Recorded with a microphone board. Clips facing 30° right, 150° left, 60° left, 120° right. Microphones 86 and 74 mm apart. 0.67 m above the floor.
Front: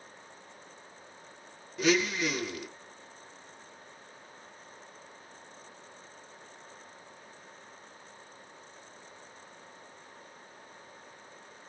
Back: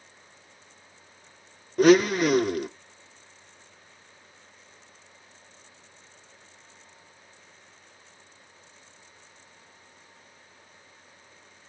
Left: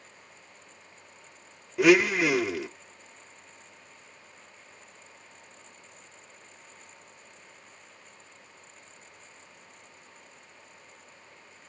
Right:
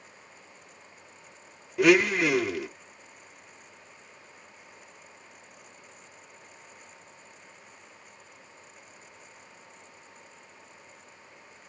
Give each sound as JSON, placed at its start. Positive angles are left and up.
{"t": 1.8, "sound": "a blender", "azimuth_deg": 150, "distance_m": 0.7}